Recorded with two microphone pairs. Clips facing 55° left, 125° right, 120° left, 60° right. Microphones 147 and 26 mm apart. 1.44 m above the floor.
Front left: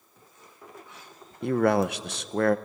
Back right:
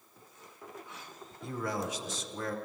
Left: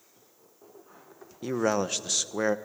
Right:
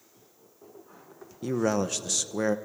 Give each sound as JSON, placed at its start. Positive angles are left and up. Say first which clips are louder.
{"t": 1.4, "sound": "a man speaking", "louder": "front left 13 dB, even", "azimuth_deg": 40, "distance_m": 0.9}